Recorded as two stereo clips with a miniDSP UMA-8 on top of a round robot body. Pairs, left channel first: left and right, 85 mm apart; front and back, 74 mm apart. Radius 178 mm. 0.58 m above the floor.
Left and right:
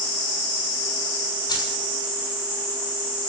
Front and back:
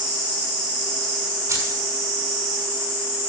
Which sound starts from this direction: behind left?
Keys jangling, at 1.5 s.